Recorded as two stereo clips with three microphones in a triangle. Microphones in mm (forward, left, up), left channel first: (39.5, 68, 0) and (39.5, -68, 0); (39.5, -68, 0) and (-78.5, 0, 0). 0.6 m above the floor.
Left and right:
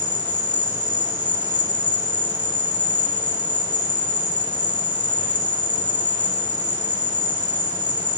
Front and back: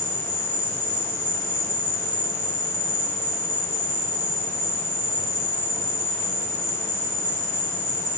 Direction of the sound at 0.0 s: 40° right.